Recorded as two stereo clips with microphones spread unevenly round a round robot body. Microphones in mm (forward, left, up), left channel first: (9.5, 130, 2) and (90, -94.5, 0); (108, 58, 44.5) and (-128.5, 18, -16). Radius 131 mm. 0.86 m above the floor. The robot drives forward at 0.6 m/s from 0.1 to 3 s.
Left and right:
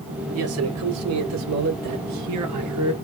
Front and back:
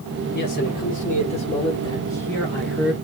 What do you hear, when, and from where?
0.3 s a man speaking: 50° right, 2.5 m; by 2.9 s 85° right, 1.9 m